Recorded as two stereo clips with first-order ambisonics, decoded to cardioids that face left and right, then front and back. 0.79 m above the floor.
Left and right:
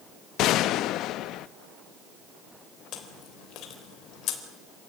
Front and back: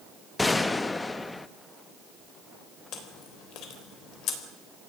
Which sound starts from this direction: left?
A gunshot, at 0.4 s.